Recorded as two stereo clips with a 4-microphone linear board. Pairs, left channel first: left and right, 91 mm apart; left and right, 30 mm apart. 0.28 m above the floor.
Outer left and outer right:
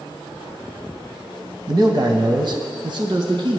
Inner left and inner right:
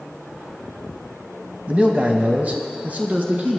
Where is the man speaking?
50° right (ahead or behind), 1.3 m; by 3.6 s 65° right (ahead or behind), 2 m.